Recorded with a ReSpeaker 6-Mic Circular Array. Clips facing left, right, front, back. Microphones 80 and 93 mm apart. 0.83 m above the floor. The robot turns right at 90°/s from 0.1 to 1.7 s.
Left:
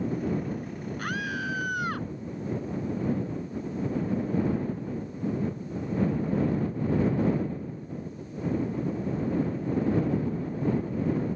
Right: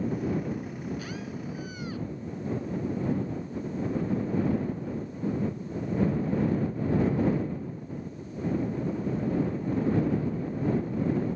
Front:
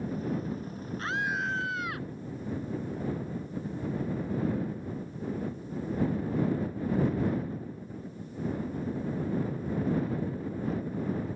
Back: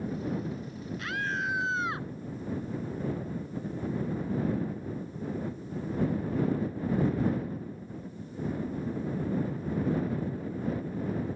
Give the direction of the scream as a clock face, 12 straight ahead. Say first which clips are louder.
Left 5 dB, front 2 dB; 10 o'clock.